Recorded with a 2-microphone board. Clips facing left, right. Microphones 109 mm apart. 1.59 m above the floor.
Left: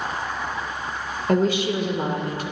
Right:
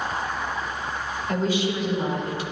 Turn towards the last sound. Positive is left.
turn(degrees=50)  # may be behind; listen again after turning